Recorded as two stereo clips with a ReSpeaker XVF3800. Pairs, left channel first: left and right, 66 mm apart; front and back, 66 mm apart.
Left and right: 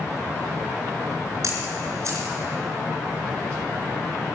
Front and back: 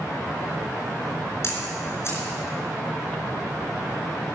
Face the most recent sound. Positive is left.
turn(degrees=-50)